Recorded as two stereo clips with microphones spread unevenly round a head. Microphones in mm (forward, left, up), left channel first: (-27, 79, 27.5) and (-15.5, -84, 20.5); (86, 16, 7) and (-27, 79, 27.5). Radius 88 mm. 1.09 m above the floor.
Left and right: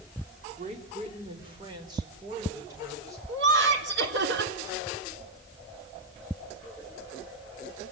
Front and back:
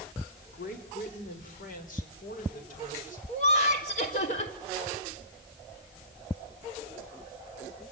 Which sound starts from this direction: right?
Laughter, at 3.3 s.